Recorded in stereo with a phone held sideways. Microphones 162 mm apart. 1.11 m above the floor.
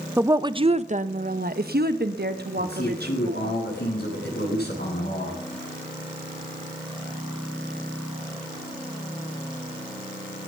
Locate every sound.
0.2 s a woman speaking: 10° right (ahead or behind), 0.8 m; by 3.5 s 80° right, 2.5 m
2.6 s a man speaking: 90° left, 9.5 m